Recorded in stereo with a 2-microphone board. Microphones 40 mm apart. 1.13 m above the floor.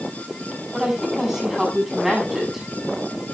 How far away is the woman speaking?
About 8 m.